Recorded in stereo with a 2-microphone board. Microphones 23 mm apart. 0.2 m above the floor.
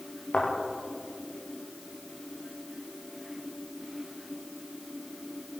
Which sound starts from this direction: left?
A thud, at 0.3 s.